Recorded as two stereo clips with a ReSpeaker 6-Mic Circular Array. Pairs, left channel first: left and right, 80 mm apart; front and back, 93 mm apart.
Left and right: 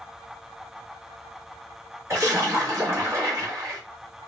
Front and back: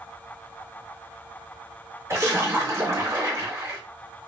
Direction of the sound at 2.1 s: 130° right.